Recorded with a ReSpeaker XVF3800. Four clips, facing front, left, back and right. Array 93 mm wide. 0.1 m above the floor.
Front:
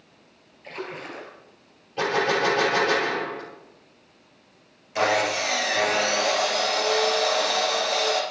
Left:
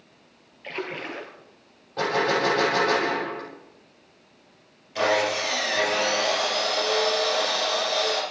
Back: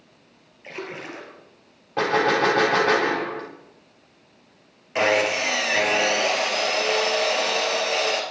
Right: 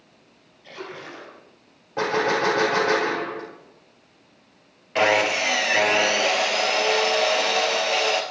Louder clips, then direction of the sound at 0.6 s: Left 4 dB, back 1 dB; 115° left.